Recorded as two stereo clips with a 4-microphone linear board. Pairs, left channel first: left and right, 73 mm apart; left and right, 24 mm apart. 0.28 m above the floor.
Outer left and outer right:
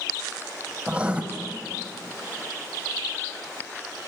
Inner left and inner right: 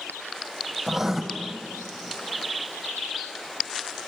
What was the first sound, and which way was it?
Writing, 15° right (ahead or behind).